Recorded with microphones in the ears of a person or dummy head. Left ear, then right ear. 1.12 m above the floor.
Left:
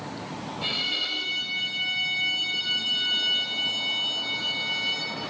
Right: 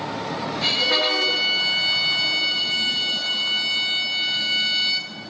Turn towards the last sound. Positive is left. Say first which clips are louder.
# right 7 dB
turn(degrees=-25)  # may be behind; listen again after turning